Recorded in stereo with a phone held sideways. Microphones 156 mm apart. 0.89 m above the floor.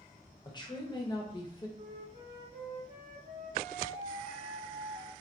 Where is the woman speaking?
30° left (ahead or behind), 0.6 m.